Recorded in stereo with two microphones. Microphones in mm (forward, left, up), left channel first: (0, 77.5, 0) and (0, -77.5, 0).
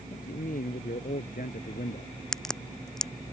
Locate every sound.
0.1 s a man speaking: 65° left (ahead or behind)
2.3 s a crack: 5° left (ahead or behind)